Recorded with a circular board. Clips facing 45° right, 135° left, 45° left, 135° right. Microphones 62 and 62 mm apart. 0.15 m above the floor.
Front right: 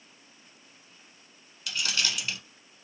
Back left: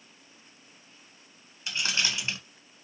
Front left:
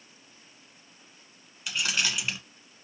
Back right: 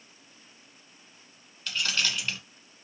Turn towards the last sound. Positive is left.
turn(degrees=110)